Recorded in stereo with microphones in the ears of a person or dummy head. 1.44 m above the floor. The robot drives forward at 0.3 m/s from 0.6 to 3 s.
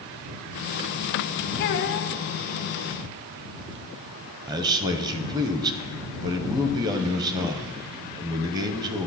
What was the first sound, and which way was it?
A child speaking, 55° left (ahead or behind).